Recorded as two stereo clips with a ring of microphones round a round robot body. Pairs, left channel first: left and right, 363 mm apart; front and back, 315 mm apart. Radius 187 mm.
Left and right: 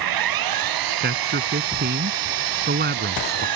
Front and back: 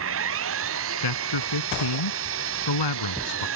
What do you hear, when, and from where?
0.0 s an engine running: 125° right
1.0 s a man speaking: 25° right